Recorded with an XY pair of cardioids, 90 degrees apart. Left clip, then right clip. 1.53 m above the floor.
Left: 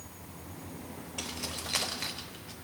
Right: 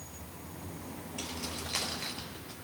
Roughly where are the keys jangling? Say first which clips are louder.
Left 2 dB; ahead left.